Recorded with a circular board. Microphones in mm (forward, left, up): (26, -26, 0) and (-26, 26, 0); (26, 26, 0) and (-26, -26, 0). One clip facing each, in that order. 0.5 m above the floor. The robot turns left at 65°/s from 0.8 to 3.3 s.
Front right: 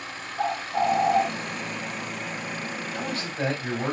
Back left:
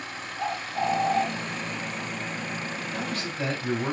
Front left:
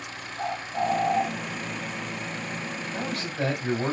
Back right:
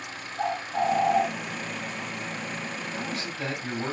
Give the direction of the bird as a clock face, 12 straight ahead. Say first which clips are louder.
Front right 4 dB, back right 2 dB; 2 o'clock.